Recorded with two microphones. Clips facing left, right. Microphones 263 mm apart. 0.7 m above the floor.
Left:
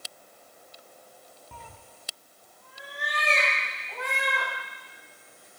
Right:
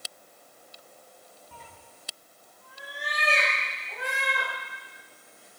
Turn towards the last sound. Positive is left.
turn(degrees=-10)  # may be behind; listen again after turning